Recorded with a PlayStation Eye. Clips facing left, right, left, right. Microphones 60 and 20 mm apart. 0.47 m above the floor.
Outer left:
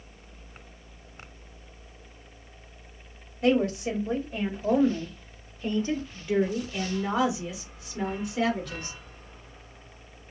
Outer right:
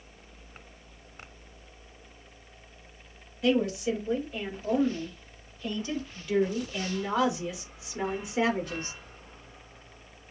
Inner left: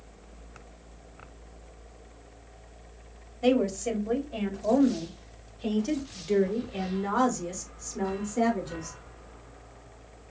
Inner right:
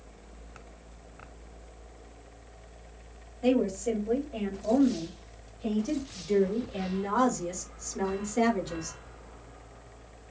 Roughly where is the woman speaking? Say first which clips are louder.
Outer left 2 dB, inner left 1 dB; left.